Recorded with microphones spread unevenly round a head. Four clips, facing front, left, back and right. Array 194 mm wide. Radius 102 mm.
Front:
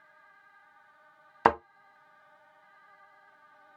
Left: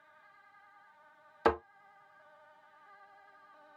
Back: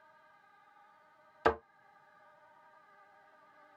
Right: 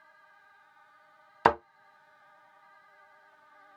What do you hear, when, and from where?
1.4 s a thud: 45° right, 2.5 m